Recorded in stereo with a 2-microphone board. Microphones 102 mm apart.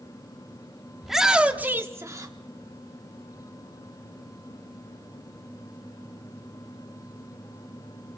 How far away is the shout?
About 1.1 m.